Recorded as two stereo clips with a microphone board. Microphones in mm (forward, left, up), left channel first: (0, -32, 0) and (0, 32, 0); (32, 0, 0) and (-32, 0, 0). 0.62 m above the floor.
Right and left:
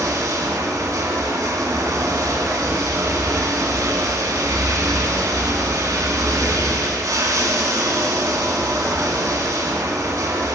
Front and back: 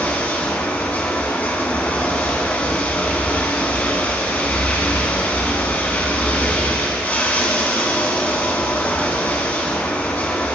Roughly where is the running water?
Ahead left.